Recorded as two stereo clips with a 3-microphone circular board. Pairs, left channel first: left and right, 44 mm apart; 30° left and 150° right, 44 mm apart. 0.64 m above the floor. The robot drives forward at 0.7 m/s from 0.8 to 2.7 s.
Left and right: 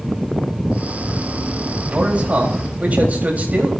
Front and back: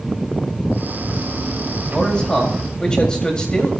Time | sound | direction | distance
1.9 | a man speaking | 35° right | 4.5 m